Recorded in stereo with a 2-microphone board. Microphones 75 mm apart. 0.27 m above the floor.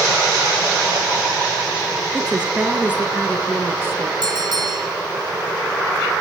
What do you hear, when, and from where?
2.1 s a woman speaking: 10° right (ahead or behind), 3.5 m; by 4.1 s 30° right (ahead or behind), 4 m
4.2 s a bell: 60° right (ahead or behind), 5 m